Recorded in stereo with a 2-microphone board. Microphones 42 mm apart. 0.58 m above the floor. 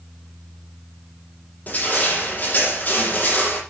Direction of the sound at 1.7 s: 40° left (ahead or behind).